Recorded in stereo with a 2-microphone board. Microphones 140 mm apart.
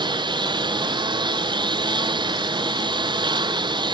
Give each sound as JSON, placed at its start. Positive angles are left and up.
{"t": 0.0, "sound": "a lawn mower", "side_deg": -35}